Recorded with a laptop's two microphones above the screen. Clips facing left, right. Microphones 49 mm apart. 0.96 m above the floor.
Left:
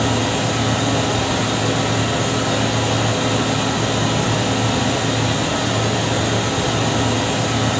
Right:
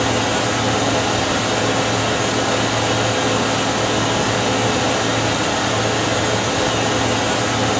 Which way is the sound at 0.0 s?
65° right (ahead or behind).